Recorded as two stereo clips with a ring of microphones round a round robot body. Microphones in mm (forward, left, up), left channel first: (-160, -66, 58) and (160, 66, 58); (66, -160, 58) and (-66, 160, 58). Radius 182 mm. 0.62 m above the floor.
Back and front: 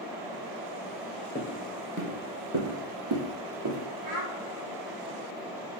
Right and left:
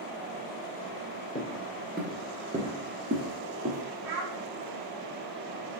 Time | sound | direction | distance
1.4 | footsteps | 95° right | 0.6 m
4.0 | a child speaking | 70° left | 1.1 m